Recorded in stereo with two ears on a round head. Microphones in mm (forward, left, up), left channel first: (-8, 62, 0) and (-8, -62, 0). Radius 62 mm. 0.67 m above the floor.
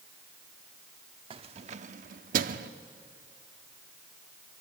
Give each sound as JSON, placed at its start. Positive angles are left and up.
{"t": 1.3, "sound": "keys jangling", "side_deg": -40, "distance_m": 0.9}